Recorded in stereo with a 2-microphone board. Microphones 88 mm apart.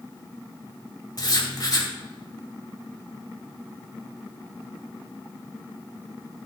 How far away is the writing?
About 2.5 m.